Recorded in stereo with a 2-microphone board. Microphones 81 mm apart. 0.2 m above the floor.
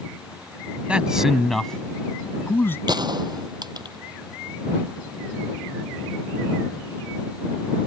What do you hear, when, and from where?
0.9 s a man speaking: 15° right (ahead or behind); by 2.8 s 30° left (ahead or behind)
2.9 s a gunshot: 60° right (ahead or behind)